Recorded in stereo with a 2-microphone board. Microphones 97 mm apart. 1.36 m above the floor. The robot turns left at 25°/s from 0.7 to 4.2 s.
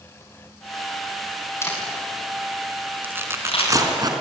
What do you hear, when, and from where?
1.6 s a camera shutter: 25° left (ahead or behind), 8 m; by 3.7 s 80° left, 8 m
3.0 s tearing paper: 20° right (ahead or behind), 3.5 m; by 4.1 s 45° right (ahead or behind), 3.5 m